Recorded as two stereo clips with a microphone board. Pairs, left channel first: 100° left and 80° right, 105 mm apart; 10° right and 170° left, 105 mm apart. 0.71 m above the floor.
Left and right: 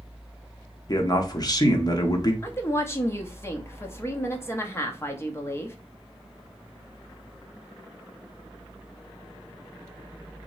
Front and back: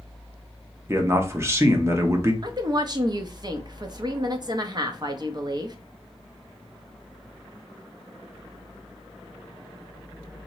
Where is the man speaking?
115° left, 0.7 m.